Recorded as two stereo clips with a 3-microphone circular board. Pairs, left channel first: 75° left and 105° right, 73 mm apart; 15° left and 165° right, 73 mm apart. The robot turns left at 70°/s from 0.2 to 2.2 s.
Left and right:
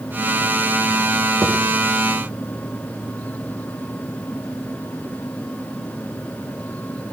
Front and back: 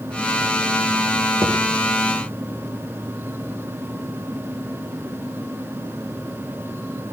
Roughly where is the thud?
Behind right.